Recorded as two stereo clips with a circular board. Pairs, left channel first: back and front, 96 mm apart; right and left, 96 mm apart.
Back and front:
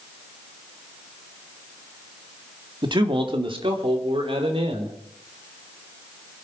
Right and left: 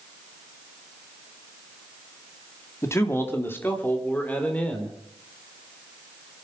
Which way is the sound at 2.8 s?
30° right.